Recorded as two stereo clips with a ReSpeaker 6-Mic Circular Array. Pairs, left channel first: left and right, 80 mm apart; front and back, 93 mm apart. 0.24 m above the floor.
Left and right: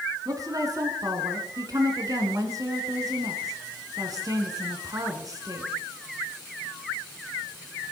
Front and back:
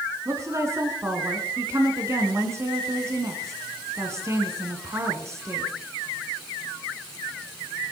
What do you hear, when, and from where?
0.2 s a woman speaking: 125° right, 3 m